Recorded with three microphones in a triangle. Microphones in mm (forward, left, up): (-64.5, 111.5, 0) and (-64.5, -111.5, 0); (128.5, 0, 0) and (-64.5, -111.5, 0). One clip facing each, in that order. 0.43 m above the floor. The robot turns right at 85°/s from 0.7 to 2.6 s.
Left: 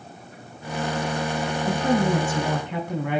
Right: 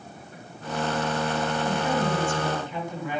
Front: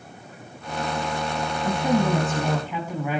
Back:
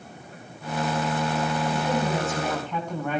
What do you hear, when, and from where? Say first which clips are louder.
1.6 s a woman speaking: left 7 dB, front 8 dB; 30° left, 4 m; by 3.2 s 115° left, 4 m